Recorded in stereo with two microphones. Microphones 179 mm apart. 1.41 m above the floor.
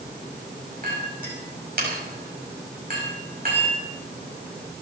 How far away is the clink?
About 5.5 m.